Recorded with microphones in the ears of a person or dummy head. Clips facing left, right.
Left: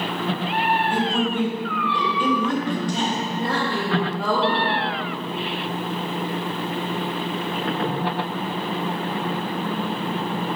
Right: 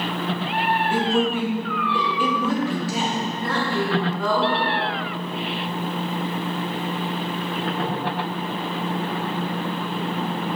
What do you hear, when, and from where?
0.9 s a woman speaking: centre (ahead or behind), 1.4 m
3.4 s a woman speaking: 20° left (ahead or behind), 2.5 m